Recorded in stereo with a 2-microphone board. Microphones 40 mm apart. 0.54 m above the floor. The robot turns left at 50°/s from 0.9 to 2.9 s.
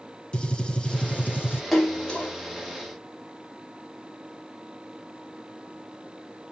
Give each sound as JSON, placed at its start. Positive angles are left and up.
{"t": 0.3, "sound": "a gunshot", "azimuth_deg": 155, "distance_m": 2.5}
{"t": 1.7, "sound": "a splash", "side_deg": 5, "distance_m": 2.5}